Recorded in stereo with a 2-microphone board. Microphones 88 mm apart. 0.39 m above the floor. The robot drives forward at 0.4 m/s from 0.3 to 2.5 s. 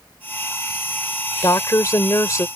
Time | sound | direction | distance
1.4 | a woman speaking | 40° left (ahead or behind) | ?